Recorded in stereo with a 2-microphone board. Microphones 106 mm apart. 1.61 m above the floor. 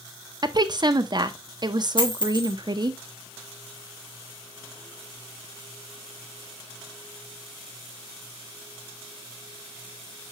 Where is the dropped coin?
50° left (ahead or behind), 2.5 m.